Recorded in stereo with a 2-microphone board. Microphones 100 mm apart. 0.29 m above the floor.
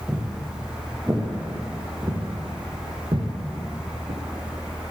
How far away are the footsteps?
About 3.5 m.